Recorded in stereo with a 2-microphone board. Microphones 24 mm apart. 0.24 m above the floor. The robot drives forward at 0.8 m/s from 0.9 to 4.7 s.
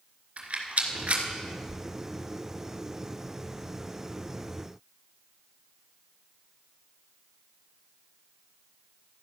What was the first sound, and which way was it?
A rattle, 70° right (ahead or behind).